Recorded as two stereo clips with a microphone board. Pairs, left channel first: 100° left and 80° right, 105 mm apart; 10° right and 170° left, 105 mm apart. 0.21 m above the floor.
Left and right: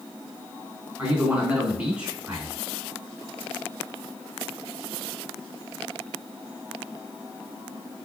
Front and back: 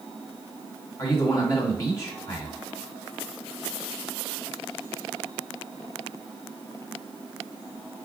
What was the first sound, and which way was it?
A man speaking, 20° right.